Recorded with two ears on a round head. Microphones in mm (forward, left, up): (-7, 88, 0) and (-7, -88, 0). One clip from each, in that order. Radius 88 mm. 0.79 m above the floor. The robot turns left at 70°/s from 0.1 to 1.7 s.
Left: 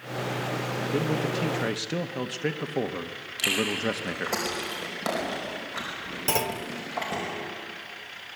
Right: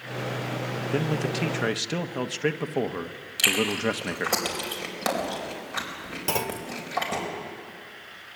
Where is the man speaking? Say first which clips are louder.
Even; 105° right, 0.8 m; by 4.3 s 160° right, 0.8 m.